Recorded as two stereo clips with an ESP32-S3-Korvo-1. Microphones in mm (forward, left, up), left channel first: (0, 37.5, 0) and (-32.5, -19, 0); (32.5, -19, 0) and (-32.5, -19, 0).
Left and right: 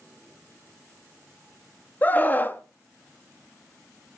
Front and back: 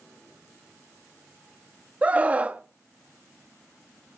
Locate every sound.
2.0 s a scream: 120° left, 0.9 m